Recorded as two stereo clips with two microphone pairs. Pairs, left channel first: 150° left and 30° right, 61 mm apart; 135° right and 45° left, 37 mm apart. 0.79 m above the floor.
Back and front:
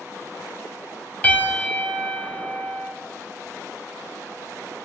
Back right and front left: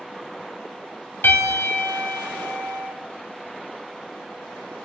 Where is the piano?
140° right, 2.5 m.